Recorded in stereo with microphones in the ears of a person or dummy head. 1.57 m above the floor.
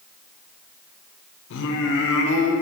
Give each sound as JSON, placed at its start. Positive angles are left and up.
{"t": 1.5, "sound": "singing", "side_deg": 70, "distance_m": 1.0}